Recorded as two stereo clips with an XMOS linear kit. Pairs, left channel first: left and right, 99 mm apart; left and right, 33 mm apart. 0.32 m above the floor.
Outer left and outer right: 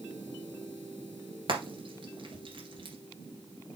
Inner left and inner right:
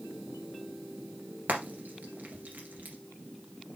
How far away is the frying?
About 2 m.